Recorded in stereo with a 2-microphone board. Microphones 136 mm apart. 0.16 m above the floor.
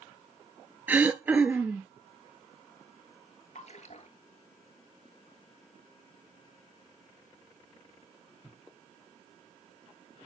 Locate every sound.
0.9 s throat clearing: 10° right (ahead or behind), 0.7 m
3.5 s a splash: 55° left (ahead or behind), 1.2 m